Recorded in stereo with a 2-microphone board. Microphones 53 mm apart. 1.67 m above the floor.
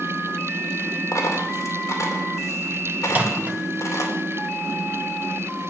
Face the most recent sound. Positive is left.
turn(degrees=-30)  # may be behind; listen again after turning